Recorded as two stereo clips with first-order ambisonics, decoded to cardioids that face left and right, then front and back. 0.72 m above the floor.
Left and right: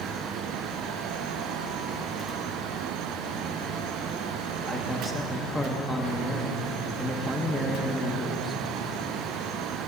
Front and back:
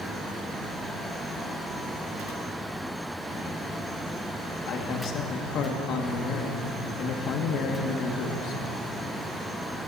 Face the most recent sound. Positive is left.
turn(degrees=-5)